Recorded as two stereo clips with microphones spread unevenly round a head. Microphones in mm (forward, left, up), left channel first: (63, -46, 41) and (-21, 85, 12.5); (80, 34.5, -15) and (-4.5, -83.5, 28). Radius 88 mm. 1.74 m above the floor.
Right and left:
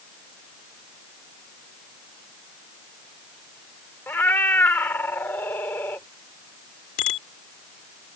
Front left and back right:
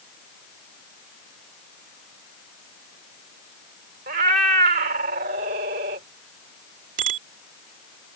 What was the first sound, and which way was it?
A cat meowing, 135° right.